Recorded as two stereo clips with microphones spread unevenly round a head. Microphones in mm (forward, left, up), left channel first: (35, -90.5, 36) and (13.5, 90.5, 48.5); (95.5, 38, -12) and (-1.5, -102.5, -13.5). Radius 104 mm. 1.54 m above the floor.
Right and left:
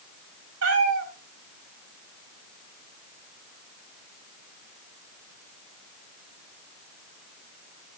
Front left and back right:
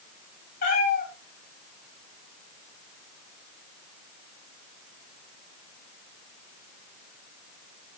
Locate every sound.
0.6 s a cat meowing: 100° left, 3.5 m